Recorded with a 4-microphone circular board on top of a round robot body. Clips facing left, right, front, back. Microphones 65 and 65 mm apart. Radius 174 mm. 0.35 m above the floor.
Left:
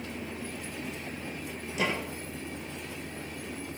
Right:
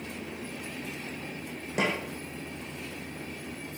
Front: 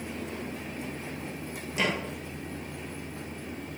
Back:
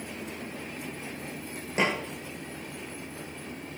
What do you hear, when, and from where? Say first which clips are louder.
1.8 s a snare drum: right 2 dB, back 2 dB; 125° right, 6 m